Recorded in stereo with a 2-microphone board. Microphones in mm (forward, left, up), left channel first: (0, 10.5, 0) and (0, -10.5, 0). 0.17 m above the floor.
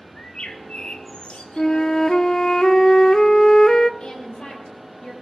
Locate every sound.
0.1 s a bird: 65° left (ahead or behind), 1.1 m
1.6 s a flute: 40° left (ahead or behind), 0.5 m
4.0 s a woman speaking: 60° left (ahead or behind), 3.5 m